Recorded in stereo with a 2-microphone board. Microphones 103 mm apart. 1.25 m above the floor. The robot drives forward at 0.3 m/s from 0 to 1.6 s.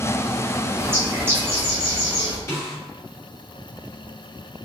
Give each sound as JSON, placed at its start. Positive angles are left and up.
{"t": 0.8, "sound": "a bird", "side_deg": -25, "distance_m": 1.3}
{"t": 2.5, "sound": "a snare drum", "side_deg": 30, "distance_m": 1.8}